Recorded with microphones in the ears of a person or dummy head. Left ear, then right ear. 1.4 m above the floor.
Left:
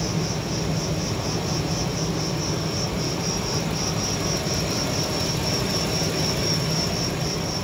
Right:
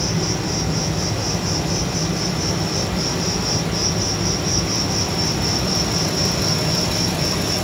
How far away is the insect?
About 1.9 m.